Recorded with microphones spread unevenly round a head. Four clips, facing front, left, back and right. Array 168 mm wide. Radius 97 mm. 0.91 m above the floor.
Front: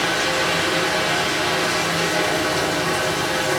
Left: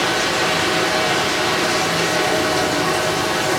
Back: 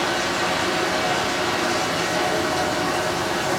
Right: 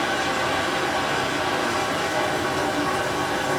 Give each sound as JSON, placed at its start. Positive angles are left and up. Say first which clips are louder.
{"t": 0.0, "sound": "running water", "louder": "left 4 dB, front 1 dB", "azimuth_deg": 85, "distance_m": 1.2}